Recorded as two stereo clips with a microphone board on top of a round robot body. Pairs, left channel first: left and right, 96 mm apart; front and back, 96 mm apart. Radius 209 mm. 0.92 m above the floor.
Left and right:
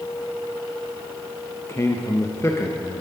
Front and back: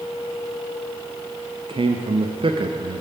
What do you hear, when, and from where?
1.7 s a man speaking: 150° left, 0.6 m